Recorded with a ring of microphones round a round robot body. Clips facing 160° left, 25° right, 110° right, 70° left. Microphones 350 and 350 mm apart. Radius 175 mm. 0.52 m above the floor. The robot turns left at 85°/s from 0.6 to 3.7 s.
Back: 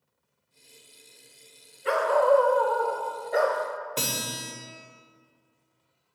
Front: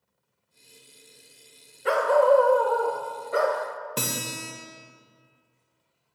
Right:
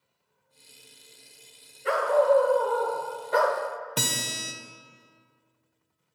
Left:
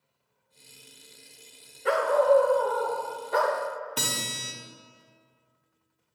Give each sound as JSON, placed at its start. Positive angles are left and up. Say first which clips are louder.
{"t": 1.9, "sound": "a dog barking", "louder": "front 2 dB, even", "azimuth_deg": 20, "distance_m": 0.6}
{"t": 4.0, "sound": "a guitar", "louder": "front 1 dB, right 2 dB", "azimuth_deg": -95, "distance_m": 0.9}